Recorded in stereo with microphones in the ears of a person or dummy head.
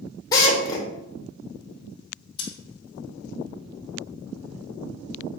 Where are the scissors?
35° left (ahead or behind), 3 m.